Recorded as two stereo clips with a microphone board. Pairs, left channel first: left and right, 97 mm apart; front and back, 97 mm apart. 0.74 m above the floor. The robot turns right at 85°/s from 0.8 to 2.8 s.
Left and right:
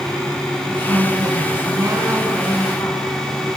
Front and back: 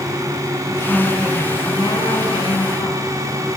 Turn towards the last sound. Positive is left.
turn(degrees=40)